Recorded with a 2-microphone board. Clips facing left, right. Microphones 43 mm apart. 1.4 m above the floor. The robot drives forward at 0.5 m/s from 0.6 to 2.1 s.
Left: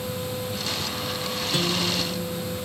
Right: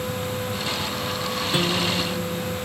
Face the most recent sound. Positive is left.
turn(degrees=-15)  # may be behind; listen again after turning